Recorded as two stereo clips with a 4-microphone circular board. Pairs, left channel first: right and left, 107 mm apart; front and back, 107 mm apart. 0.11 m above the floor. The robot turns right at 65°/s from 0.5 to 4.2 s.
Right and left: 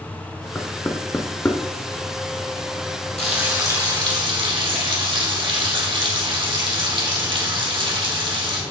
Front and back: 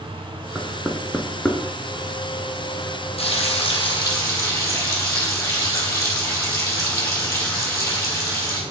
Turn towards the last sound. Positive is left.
turn(degrees=60)